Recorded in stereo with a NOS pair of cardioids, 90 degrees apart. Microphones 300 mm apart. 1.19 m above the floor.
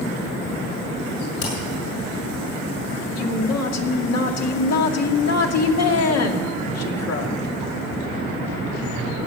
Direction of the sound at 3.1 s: 55° left.